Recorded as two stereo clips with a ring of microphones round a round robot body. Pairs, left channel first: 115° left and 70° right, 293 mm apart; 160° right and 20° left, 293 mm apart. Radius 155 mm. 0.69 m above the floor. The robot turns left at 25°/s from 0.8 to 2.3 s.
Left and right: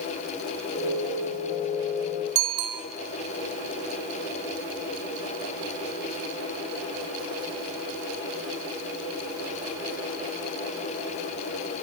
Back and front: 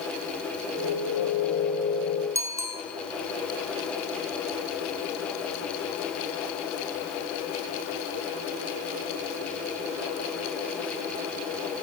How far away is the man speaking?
I don't hear a man speaking.